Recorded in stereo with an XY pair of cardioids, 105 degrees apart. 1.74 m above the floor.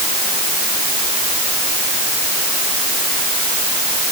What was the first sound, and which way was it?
Only background noise.